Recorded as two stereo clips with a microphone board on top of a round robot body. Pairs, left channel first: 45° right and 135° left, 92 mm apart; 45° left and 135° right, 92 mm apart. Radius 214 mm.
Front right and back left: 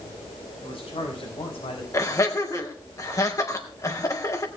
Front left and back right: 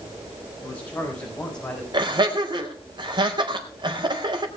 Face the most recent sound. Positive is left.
turn(degrees=-100)